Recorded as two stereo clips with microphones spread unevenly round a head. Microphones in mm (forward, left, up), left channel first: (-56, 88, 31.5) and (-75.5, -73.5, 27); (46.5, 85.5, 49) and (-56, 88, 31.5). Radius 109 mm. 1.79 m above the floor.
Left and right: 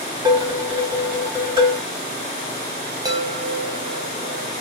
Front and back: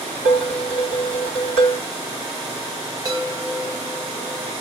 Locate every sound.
0.2 s dishes clattering: 160° right, 3.5 m
3.0 s a chime: 145° right, 0.8 m